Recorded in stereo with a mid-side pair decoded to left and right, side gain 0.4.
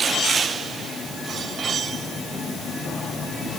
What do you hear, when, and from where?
Only background noise.